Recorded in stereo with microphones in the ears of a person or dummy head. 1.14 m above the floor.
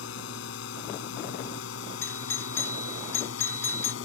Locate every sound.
0.0 s a drone: 75° left (ahead or behind); by 4.0 s 70° left (ahead or behind)
2.0 s a doorbell: 10° left (ahead or behind)